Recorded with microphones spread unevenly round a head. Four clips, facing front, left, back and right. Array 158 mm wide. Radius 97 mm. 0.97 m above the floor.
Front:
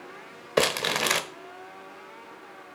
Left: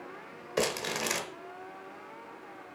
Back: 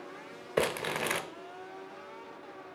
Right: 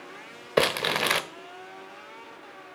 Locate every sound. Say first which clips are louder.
0.6 s crumpling: right 7 dB, front 5 dB; 50° right, 1.0 m